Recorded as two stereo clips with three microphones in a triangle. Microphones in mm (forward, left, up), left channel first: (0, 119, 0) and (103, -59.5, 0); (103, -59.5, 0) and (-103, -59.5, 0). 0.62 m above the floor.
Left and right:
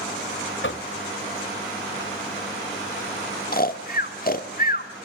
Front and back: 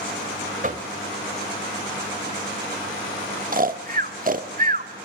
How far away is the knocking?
About 1.8 m.